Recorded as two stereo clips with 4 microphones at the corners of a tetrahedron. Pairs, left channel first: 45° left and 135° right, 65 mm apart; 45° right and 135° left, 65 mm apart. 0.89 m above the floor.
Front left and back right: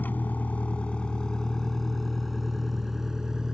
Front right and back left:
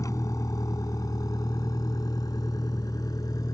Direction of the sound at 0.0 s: 15° right.